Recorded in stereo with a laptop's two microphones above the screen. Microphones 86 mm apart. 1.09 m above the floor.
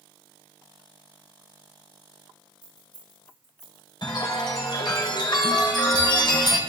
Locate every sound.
2.6 s keys jangling: 50° right (ahead or behind), 6.5 m; by 3.9 s 45° right (ahead or behind), 7 m
4.0 s a chime: 55° left (ahead or behind), 3 m